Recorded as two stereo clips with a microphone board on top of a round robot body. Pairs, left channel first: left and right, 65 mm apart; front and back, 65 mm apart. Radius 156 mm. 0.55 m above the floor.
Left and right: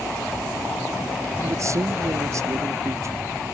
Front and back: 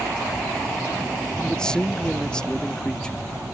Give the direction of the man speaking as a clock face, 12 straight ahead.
2 o'clock.